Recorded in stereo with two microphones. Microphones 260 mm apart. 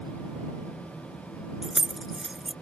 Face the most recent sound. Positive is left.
turn(degrees=0)  # may be behind; listen again after turning